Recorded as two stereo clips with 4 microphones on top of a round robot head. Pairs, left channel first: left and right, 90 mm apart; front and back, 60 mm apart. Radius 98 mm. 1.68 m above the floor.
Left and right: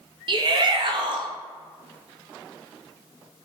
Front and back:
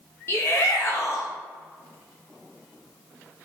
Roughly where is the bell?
No bell in this recording.